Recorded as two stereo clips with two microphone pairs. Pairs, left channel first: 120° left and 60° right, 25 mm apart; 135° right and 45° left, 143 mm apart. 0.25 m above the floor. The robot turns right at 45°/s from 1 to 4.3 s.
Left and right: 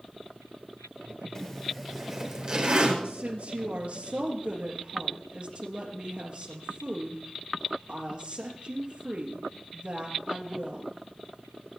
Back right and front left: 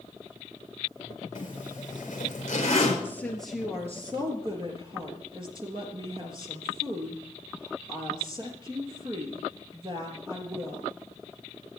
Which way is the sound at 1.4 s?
160° right.